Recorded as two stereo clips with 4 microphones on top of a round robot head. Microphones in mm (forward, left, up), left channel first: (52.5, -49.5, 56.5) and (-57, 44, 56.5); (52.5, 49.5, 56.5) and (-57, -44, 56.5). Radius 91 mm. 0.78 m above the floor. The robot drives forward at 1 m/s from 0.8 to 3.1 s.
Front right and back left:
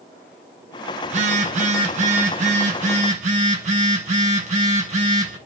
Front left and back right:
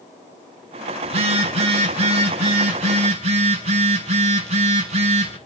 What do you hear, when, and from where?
1.0 s a phone buzzing: 175° left, 3.5 m